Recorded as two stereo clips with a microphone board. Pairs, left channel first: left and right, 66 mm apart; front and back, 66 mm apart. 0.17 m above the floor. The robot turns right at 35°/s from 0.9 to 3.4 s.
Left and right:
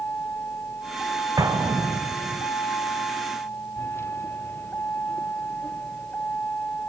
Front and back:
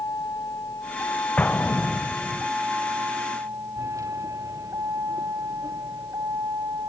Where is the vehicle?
35° left; by 6.9 s 160° left.